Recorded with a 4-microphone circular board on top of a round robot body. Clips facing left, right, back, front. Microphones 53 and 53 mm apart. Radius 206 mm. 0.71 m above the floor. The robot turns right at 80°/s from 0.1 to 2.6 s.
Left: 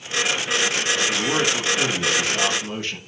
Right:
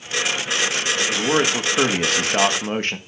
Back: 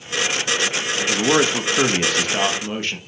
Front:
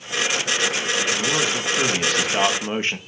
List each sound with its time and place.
1.1 s a man speaking: straight behind, 1.8 m; by 3.0 s 55° right, 1.8 m